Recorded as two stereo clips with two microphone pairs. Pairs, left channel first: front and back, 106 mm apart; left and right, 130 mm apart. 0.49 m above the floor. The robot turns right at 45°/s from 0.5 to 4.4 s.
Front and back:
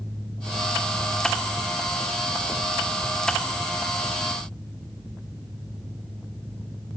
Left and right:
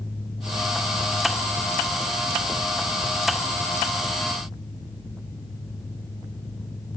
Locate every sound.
Only background noise.